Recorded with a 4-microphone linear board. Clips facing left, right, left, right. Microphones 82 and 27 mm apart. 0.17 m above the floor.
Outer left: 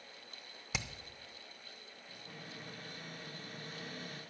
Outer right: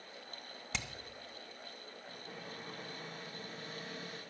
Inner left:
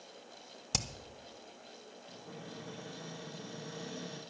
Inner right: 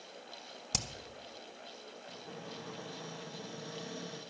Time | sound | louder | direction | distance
0.7 | hammering | outer left 1 dB, inner left 1 dB | 5° left (ahead or behind) | 0.9 m
2.1 | a cupboard door | outer right 2 dB, inner right 1 dB | 20° right (ahead or behind) | 7 m